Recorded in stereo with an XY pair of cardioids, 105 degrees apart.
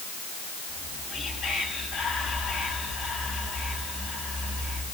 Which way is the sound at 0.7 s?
55° left.